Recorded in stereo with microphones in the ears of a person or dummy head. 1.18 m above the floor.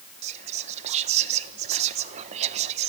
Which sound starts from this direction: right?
Whispering, at 0.2 s.